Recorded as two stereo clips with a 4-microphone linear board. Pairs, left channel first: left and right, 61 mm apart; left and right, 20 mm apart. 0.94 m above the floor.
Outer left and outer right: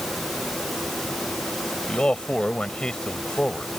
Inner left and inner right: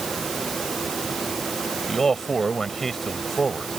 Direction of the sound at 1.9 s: 15° left (ahead or behind).